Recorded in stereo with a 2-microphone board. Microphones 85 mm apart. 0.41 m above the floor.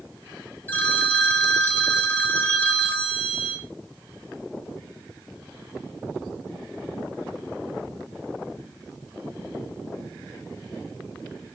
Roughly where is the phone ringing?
Left.